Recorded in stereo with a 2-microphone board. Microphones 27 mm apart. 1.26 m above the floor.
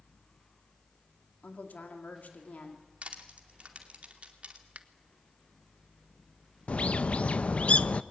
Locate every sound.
1.4 s a woman speaking: 80° left, 2.5 m
3.0 s crushing: 55° right (ahead or behind), 2.5 m
4.8 s a finger snap: 70° right (ahead or behind), 1.0 m
6.7 s a bird: 50° left (ahead or behind), 0.5 m